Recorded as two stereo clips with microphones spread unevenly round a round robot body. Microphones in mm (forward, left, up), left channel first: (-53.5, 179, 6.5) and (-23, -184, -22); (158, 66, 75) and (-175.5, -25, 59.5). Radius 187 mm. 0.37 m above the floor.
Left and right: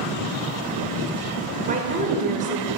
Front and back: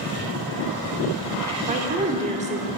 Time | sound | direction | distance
1.7 | a woman speaking | 120° right | 1.0 m